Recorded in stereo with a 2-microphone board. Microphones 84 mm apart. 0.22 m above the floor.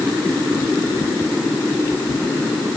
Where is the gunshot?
No gunshot in this recording.